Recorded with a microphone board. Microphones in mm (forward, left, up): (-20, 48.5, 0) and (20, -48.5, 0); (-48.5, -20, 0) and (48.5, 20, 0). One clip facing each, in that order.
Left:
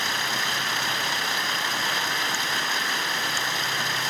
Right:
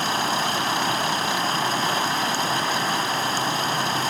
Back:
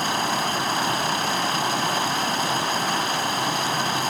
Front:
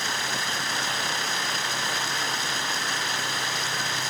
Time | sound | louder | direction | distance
0.0 | running water | right 5 dB, back 7 dB | 120° right | ?